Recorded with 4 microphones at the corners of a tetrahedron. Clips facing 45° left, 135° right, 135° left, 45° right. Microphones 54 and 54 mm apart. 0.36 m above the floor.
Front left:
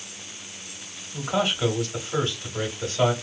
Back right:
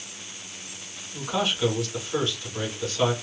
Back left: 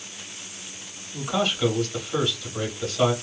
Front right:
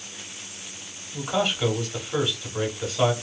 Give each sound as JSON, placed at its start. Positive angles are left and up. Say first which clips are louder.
{"t": 1.1, "sound": "a man speaking", "louder": "front left 2 dB, even", "azimuth_deg": 15, "distance_m": 1.1}